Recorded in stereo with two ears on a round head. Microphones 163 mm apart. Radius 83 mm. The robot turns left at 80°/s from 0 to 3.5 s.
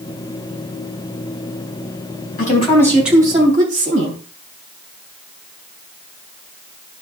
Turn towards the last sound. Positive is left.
turn(degrees=-40)